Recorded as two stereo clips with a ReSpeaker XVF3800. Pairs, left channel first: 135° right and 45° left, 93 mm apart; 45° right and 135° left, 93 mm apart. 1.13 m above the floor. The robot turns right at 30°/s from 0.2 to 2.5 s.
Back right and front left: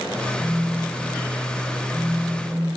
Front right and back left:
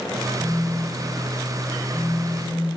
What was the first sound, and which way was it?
A phone buzzing, 85° left.